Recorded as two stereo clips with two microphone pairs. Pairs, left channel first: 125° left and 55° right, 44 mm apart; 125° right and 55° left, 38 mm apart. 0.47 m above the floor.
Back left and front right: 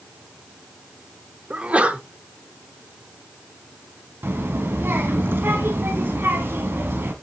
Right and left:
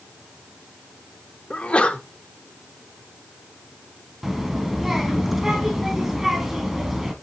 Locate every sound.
1.5 s a sneeze: 95° right, 1.1 m
4.2 s a child speaking: 25° right, 2.5 m